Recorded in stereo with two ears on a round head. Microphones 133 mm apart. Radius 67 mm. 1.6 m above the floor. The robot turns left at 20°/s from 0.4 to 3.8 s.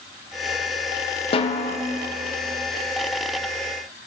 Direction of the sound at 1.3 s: 40° left (ahead or behind).